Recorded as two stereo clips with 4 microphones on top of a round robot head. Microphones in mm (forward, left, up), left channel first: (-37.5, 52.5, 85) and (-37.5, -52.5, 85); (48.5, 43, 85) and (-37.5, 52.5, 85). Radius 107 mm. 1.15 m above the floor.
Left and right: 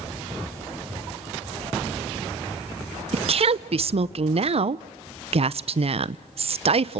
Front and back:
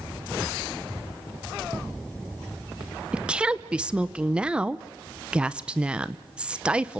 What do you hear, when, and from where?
3.1 s a woman speaking: 110° right, 0.7 m